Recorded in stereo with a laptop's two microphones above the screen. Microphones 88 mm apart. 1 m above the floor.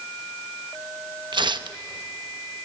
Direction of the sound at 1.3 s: 60° right (ahead or behind).